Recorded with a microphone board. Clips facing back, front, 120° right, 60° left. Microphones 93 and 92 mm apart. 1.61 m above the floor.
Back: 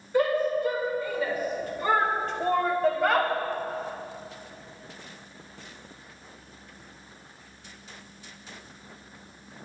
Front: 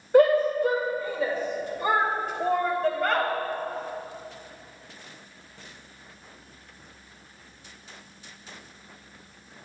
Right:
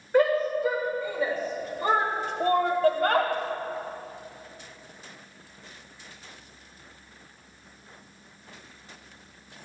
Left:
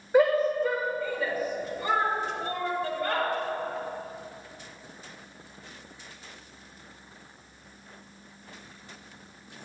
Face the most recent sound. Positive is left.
turn(degrees=-100)